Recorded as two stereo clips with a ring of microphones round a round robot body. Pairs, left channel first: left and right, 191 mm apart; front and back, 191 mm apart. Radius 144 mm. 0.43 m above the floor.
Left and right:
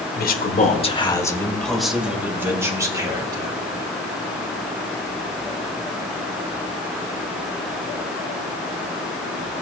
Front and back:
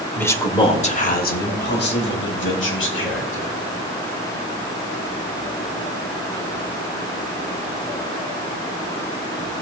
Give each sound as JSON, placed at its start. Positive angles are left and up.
{"t": 0.1, "sound": "a man speaking", "azimuth_deg": 80, "distance_m": 2.0}